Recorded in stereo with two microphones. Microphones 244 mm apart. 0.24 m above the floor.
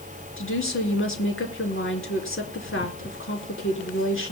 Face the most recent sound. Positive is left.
turn(degrees=60)  # may be behind; listen again after turning